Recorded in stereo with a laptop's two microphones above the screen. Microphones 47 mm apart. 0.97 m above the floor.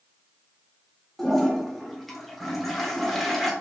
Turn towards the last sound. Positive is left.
turn(degrees=0)  # may be behind; listen again after turning